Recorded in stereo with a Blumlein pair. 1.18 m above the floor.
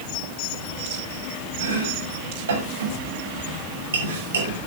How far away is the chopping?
About 6.5 m.